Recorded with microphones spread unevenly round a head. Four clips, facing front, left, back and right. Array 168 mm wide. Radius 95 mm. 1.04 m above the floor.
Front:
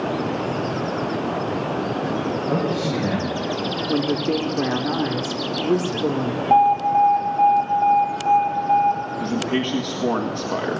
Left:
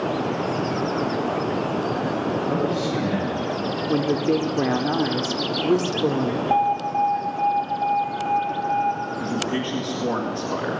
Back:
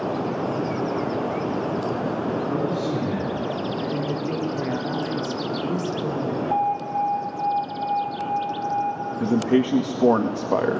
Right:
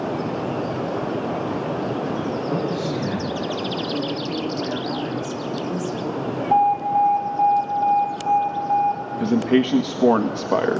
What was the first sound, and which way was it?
A man speaking, 20° left.